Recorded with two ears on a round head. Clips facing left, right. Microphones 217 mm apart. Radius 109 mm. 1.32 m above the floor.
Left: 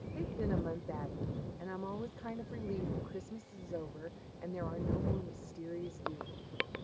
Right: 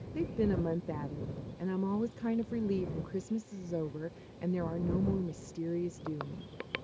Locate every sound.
0.1 s a woman speaking: 50° right (ahead or behind)